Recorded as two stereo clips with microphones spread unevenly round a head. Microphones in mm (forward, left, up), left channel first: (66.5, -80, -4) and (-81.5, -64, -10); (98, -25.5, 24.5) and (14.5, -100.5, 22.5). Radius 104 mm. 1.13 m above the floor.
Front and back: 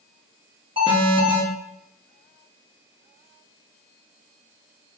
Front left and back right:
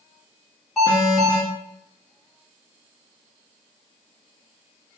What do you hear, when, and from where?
0.8 s an alarm: 130° left, 1.2 m